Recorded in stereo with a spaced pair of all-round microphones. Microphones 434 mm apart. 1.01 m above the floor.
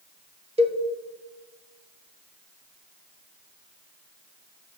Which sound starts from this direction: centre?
A cowbell, at 0.6 s.